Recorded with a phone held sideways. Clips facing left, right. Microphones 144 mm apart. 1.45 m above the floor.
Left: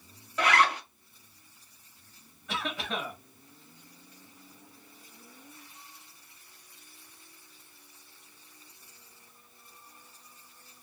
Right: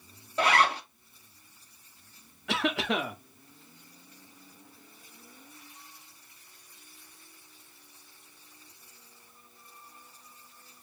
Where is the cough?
80° right, 0.7 m.